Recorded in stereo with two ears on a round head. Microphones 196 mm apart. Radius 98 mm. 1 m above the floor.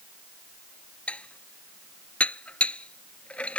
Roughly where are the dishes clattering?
Centre.